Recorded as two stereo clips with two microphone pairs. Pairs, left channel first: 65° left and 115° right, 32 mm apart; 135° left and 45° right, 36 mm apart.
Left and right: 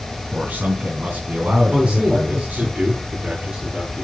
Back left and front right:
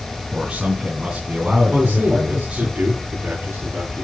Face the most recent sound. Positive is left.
turn(degrees=-50)